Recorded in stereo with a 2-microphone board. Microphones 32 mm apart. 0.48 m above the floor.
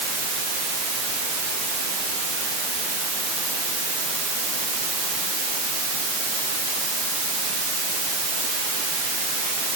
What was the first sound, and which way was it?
Only background noise.